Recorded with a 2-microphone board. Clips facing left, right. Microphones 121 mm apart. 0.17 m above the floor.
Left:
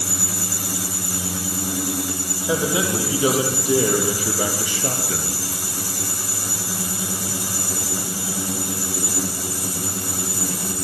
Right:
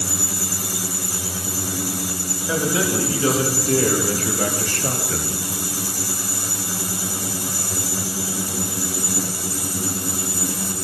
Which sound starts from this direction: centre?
A man speaking, at 2.5 s.